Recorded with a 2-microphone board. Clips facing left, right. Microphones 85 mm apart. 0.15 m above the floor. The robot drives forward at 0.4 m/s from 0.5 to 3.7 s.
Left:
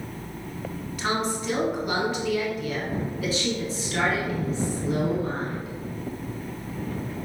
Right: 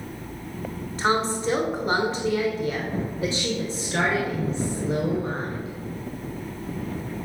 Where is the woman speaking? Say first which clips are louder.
Right 4 dB; 35° right (ahead or behind), 1.2 m; by 5.7 s 30° right (ahead or behind), 1.4 m.